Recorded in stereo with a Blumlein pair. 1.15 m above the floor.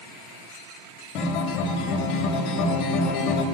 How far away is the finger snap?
No finger snap in this recording.